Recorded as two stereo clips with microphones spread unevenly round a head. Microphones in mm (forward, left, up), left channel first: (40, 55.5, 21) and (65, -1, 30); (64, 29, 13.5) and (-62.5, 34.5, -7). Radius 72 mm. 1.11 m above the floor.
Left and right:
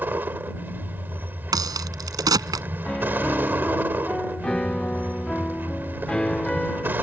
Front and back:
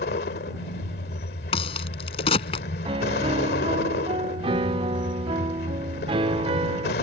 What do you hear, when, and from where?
0.0 s a vehicle: 10° right
1.5 s a crack: 55° right
2.9 s a piano: straight behind